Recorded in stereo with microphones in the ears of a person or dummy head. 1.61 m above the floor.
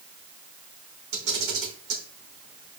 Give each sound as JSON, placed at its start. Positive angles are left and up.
{"t": 1.1, "sound": "a camera shutter", "side_deg": -60, "distance_m": 3.5}